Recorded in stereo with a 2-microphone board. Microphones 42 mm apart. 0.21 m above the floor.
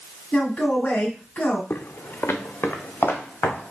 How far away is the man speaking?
About 1.3 m.